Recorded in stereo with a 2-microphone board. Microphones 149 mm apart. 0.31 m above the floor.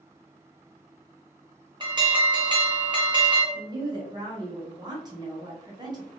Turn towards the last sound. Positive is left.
turn(degrees=-25)  # may be behind; listen again after turning